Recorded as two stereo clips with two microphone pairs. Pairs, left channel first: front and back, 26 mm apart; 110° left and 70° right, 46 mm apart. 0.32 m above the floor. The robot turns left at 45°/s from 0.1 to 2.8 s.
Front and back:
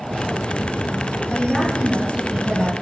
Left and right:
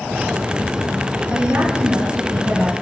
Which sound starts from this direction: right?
A woman speaking, at 1.3 s.